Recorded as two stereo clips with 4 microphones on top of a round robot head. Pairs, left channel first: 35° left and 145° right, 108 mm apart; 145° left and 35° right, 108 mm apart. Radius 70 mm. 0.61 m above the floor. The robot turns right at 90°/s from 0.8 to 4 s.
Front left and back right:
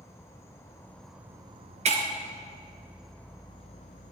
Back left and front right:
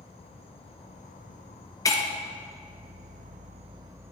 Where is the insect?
105° left, 0.8 m; by 4.1 s 30° left, 0.8 m.